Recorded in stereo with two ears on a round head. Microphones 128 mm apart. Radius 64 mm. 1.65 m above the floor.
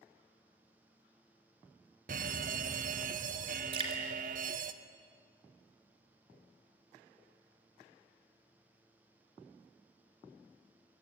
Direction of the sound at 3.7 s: 35° right (ahead or behind).